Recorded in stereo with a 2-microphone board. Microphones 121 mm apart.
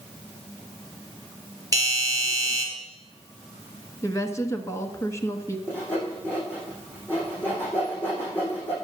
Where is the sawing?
15° left (ahead or behind), 6.5 m.